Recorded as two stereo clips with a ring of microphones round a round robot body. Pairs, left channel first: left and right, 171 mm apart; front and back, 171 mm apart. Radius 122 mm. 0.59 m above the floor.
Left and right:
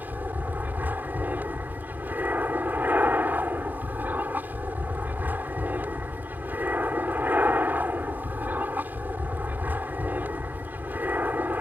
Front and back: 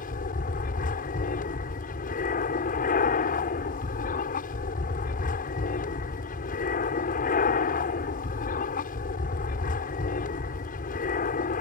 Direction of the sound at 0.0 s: 15° right.